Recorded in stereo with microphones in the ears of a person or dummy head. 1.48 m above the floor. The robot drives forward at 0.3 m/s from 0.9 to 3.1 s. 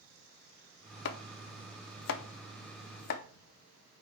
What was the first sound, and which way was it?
Chopping, 65° left (ahead or behind).